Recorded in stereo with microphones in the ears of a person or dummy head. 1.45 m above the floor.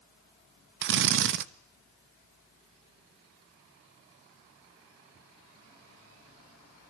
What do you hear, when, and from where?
0.8 s a drill: 60° right (ahead or behind), 1.0 m